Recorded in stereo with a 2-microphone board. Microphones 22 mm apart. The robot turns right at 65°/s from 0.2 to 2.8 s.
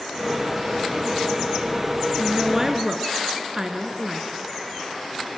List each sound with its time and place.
2.2 s a woman speaking: 20° right (ahead or behind), 1.1 m; by 4.4 s 25° right (ahead or behind), 1.1 m